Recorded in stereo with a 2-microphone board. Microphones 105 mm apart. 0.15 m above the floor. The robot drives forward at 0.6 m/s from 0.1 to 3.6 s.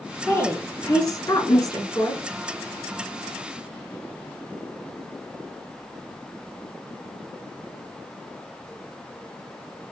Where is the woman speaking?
30° left (ahead or behind), 2.5 m; by 2.2 s 40° left (ahead or behind), 2 m.